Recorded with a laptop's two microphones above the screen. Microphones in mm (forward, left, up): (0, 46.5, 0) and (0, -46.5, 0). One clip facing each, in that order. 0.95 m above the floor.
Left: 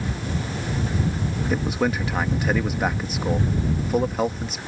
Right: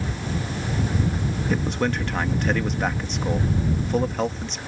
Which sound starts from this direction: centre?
A man speaking, at 1.5 s.